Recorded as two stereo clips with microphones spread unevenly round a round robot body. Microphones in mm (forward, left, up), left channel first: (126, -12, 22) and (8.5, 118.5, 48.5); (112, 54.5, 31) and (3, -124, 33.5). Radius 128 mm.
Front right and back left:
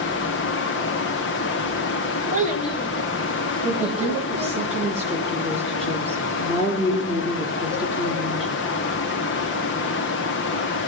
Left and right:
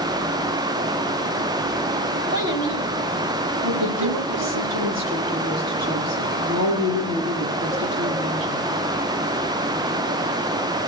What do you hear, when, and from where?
2.3 s a child speaking: 170° right, 2.5 m; by 4.6 s 135° right, 2.5 m
3.6 s a woman speaking: 140° right, 9 m